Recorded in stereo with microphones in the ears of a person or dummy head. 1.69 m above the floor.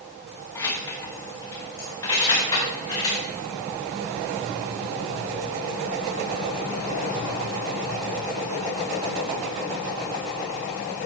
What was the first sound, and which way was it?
Keys jangling, 15° left (ahead or behind).